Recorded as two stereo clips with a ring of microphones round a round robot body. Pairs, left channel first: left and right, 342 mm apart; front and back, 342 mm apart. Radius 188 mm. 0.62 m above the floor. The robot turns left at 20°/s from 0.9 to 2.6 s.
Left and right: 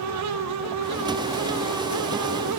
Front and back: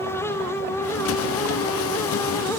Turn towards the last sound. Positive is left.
No sound to turn to.